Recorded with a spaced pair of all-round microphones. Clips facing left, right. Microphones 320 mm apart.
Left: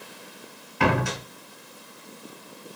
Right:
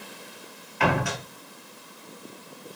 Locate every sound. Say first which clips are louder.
0.8 s a door slam: left 2 dB; 45° left (ahead or behind), 1.9 m